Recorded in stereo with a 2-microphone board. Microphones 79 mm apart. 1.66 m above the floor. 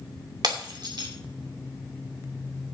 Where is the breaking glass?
55° right (ahead or behind), 2 m.